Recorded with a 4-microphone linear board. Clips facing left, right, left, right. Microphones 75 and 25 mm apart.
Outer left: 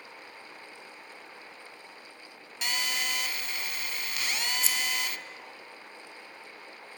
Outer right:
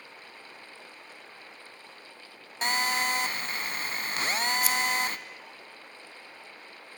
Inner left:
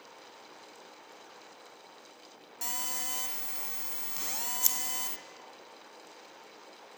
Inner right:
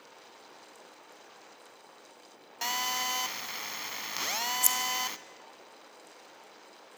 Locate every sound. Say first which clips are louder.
2.6 s a phone buzzing: outer right 6 dB, inner right 7 dB; 40° right (ahead or behind), 0.8 m
4.6 s scissors: outer right 6 dB, inner right 2 dB; 30° left (ahead or behind), 2 m